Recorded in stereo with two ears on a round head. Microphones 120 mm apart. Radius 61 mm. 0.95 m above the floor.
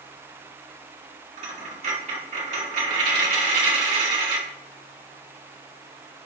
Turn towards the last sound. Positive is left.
turn(degrees=-60)  # may be behind; listen again after turning